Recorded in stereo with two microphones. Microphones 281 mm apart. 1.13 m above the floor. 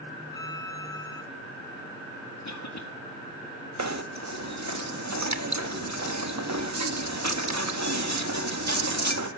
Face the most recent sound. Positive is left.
turn(degrees=-75)  # may be behind; listen again after turning